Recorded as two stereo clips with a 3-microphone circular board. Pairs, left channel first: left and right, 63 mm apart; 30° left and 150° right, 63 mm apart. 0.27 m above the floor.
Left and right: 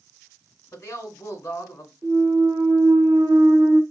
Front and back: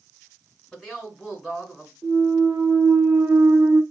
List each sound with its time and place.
0.7 s a woman speaking: 130° left, 1.7 m
2.0 s a clunk: 105° right, 1.1 m